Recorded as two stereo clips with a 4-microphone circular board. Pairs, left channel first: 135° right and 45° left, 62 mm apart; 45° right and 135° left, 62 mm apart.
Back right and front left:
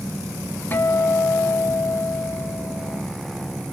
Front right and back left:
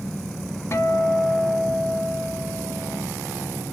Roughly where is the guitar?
Right.